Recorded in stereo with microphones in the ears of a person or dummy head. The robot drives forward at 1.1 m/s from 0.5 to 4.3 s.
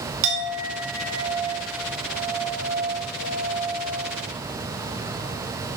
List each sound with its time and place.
0.2 s a clink: 75° right (ahead or behind), 2.5 m; by 4.1 s 30° right (ahead or behind), 5 m